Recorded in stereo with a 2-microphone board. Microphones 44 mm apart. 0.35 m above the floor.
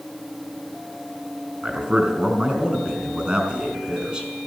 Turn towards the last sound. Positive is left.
turn(degrees=-25)  # may be behind; listen again after turning